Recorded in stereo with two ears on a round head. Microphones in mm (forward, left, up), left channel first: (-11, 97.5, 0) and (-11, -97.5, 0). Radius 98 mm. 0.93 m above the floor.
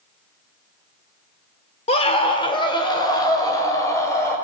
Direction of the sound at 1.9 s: 30° left (ahead or behind).